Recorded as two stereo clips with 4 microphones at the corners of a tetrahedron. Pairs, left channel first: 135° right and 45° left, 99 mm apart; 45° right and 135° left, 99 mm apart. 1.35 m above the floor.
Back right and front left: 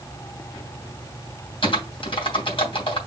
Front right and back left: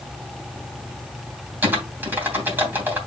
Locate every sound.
1.6 s typing on a keyboard: 155° right, 3 m